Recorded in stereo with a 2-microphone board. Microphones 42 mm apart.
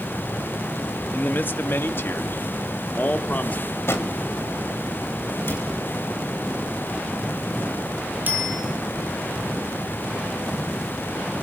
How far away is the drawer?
About 2.5 m.